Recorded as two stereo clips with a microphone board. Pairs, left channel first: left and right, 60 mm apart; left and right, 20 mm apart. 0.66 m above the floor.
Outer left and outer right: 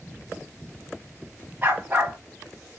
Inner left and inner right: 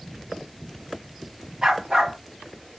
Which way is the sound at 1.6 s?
30° right (ahead or behind).